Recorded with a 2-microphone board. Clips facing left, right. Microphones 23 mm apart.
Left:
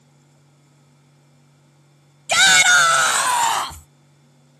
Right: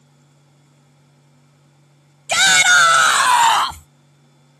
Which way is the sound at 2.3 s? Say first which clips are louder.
Right 1 dB; 5° left (ahead or behind).